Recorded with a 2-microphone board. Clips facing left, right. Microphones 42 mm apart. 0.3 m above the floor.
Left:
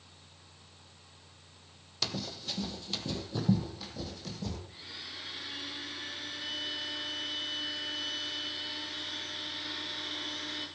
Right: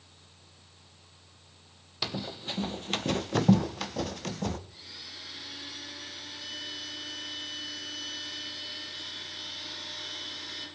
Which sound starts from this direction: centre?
Running footsteps, at 2.0 s.